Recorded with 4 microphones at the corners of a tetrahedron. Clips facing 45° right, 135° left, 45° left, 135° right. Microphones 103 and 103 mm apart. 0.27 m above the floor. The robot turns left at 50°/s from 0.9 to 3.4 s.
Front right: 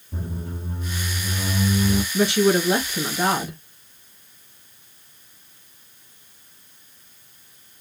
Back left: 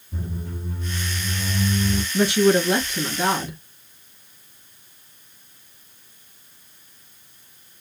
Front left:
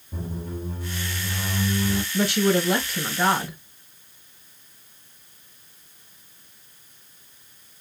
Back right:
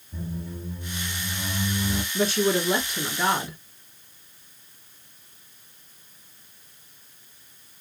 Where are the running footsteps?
No running footsteps in this recording.